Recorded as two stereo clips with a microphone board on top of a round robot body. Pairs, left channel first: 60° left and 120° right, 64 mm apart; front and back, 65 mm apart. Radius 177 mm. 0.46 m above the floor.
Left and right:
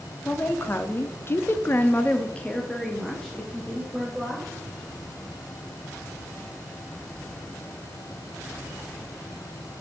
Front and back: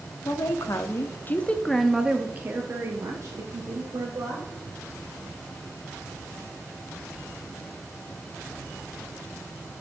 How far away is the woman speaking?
About 1.2 m.